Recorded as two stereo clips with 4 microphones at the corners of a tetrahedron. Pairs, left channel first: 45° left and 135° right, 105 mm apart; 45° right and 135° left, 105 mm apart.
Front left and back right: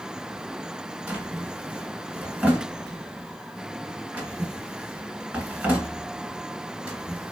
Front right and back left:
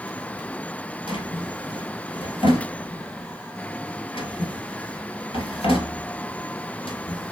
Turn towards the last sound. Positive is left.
turn(degrees=-60)